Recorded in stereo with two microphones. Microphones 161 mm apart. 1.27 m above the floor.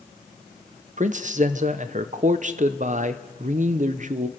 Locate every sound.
1.0 s a man speaking: 50° right (ahead or behind), 0.6 m